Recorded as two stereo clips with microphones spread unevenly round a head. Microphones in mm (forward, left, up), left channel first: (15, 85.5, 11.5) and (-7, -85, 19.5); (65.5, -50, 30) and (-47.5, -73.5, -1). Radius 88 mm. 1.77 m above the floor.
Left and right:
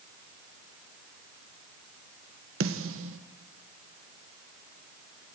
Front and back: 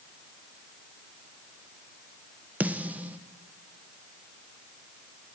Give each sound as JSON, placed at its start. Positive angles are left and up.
{"t": 2.6, "sound": "a snare drum", "azimuth_deg": -90, "distance_m": 1.8}